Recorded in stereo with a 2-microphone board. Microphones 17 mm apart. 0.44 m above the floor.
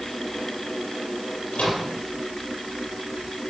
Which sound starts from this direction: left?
A microwave, at 1.5 s.